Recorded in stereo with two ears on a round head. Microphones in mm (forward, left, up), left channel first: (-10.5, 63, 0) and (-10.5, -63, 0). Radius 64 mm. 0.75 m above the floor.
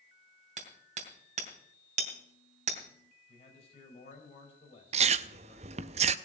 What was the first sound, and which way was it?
Hammering, 55° right (ahead or behind).